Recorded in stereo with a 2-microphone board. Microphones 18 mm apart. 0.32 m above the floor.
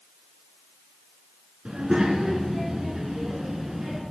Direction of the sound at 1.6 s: 60° right (ahead or behind).